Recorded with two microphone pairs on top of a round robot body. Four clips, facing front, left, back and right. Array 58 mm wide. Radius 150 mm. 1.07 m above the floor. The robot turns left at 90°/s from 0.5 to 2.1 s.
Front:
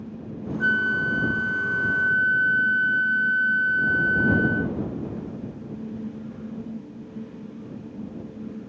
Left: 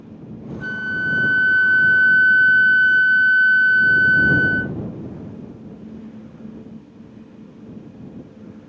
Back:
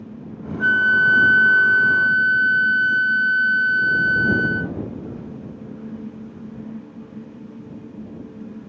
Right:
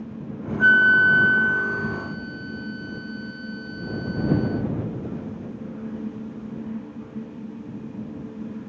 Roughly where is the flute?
Right.